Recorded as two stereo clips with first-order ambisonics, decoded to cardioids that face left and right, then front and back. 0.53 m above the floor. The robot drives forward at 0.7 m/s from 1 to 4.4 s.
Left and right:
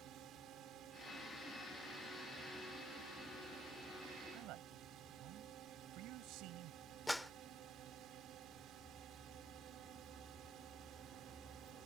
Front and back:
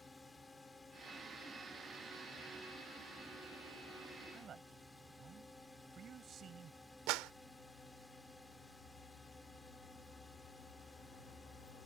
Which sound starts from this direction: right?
A drone, at 0.0 s.